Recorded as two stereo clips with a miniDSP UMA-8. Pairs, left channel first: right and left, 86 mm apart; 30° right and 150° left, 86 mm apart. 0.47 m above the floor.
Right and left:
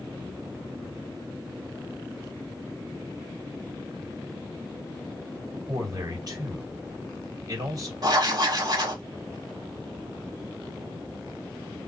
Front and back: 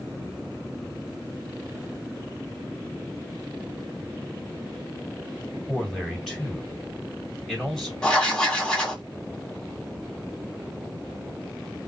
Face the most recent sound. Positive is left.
turn(degrees=50)